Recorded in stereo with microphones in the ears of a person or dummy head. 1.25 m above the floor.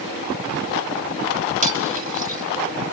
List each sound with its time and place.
1.6 s cutlery clinking: 35° right (ahead or behind), 4 m